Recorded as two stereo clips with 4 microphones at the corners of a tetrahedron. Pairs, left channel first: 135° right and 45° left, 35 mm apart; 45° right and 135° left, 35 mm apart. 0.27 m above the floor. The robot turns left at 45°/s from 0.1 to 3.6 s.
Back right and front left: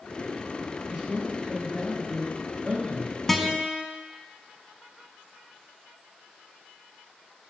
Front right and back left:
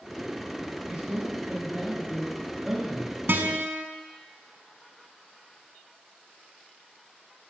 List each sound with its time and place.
0.9 s a man speaking: 155° left, 1.7 m; by 3.2 s 50° left, 1.7 m
3.3 s a guitar: 145° left, 0.6 m; by 3.9 s 130° left, 0.6 m